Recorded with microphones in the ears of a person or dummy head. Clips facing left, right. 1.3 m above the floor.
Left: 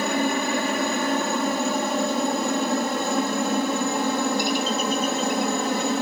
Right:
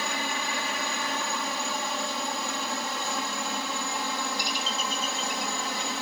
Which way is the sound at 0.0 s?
45° left (ahead or behind).